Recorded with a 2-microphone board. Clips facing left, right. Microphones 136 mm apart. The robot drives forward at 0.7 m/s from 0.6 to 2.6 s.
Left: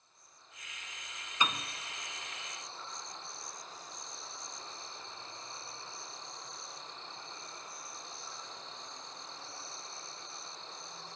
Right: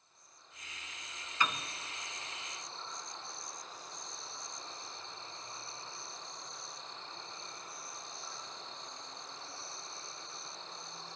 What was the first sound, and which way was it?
A piano, 20° left (ahead or behind).